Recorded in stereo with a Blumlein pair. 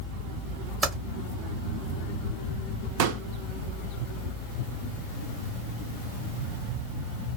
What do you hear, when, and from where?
0.8 s typing on a keyboard: 10° right, 0.9 m
3.0 s a pop: 45° right, 0.6 m